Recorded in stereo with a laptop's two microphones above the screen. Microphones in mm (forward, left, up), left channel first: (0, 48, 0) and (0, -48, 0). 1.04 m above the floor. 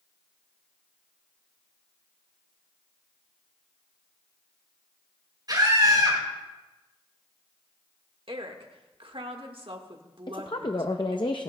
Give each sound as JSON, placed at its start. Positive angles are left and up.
{"t": 5.5, "sound": "a scream", "side_deg": -45, "distance_m": 5.0}
{"t": 8.3, "sound": "a woman speaking", "side_deg": -65, "distance_m": 1.4}
{"t": 10.3, "sound": "a woman speaking", "side_deg": 55, "distance_m": 0.7}